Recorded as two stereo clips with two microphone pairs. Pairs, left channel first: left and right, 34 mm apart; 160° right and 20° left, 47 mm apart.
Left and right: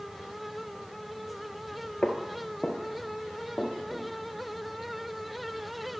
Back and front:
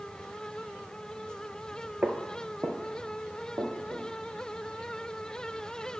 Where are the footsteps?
45° left, 1.1 m; by 4.0 s 5° left, 3.5 m.